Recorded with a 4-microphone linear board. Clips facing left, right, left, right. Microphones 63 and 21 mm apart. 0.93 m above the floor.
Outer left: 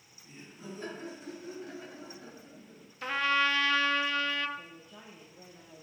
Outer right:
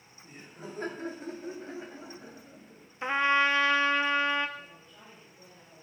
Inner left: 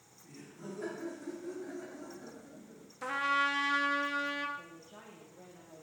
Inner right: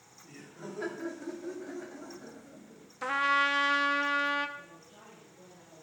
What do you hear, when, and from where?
0.2 s laughter: 55° right (ahead or behind), 2.0 m; by 2.9 s 15° left (ahead or behind), 1.4 m
3.0 s a trumpet: 25° right (ahead or behind), 0.5 m
4.6 s a woman speaking: 50° left (ahead or behind), 2 m